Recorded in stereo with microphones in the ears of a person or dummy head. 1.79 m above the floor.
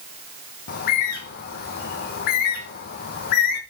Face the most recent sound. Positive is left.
turn(degrees=60)  # may be behind; listen again after turning